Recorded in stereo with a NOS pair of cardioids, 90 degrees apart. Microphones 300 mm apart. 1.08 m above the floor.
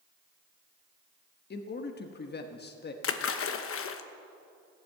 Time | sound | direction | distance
1.5 | a man speaking | 35° left | 1.2 m
3.0 | a splash | 50° left | 1.1 m